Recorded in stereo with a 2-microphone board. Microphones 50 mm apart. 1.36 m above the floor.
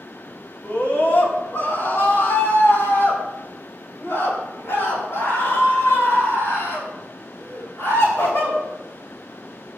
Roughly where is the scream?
Left.